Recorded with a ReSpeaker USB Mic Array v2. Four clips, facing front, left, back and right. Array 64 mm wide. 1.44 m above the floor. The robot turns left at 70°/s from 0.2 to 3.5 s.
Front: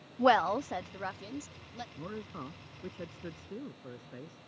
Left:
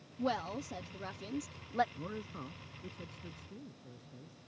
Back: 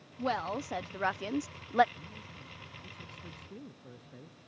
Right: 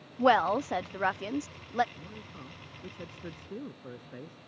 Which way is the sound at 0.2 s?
50° right.